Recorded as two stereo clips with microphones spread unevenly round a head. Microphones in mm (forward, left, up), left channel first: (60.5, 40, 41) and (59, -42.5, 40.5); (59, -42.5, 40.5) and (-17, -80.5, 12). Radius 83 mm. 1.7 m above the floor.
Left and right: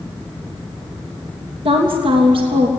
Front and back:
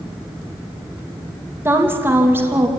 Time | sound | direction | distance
1.6 | a woman speaking | 90° right | 3 m